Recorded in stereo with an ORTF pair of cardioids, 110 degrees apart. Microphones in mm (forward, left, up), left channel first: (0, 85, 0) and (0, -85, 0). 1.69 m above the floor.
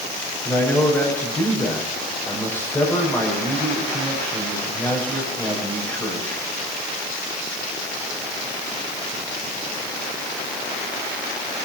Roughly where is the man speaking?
Ahead.